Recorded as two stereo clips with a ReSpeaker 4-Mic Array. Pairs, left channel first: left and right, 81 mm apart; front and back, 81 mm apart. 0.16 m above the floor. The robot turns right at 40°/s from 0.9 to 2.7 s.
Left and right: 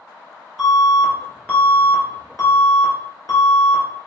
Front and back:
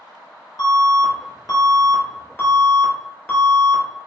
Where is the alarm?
Straight ahead, 2.0 m; by 3.8 s 70° left, 2.0 m.